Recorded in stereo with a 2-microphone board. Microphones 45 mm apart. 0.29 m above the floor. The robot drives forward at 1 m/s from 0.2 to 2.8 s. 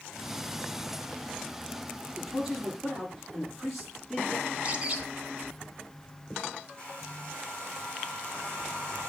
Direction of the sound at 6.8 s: 25° left (ahead or behind).